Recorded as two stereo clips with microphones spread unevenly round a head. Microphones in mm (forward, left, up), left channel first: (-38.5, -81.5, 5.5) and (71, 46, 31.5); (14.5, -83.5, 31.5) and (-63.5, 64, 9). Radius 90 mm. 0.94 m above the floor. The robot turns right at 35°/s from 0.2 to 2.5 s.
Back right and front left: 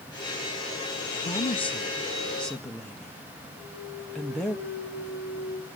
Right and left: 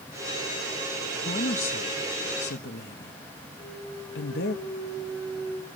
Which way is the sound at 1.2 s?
95° right.